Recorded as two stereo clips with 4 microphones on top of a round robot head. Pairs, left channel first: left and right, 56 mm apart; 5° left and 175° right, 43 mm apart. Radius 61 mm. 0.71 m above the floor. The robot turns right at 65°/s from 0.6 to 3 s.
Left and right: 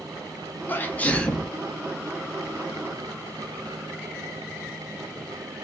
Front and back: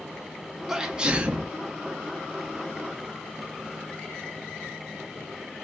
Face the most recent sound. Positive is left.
turn(degrees=-100)